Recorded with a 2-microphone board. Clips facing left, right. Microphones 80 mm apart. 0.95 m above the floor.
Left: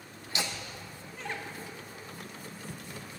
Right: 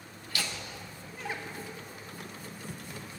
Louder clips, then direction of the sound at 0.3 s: Left 1 dB; 25° left (ahead or behind).